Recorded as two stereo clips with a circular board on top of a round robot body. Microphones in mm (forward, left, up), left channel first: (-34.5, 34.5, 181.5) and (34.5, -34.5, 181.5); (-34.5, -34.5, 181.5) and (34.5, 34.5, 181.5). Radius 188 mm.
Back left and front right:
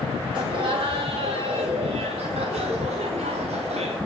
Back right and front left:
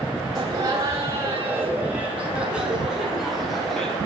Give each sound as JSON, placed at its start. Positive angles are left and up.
{"t": 0.3, "sound": "laughter", "azimuth_deg": -5, "distance_m": 4.0}